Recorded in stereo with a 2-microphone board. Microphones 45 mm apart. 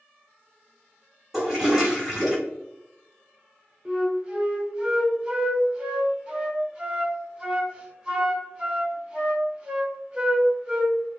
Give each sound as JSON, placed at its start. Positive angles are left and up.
{"t": 1.3, "sound": "a toilet flushing", "side_deg": -5, "distance_m": 1.4}
{"t": 3.9, "sound": "a flute", "side_deg": -20, "distance_m": 0.7}